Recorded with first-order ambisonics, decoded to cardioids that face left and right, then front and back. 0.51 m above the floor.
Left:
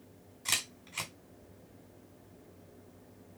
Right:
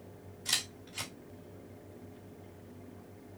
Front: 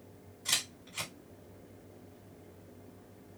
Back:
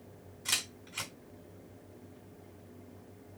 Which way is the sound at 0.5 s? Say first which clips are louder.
Even, front 1 dB; 105° left.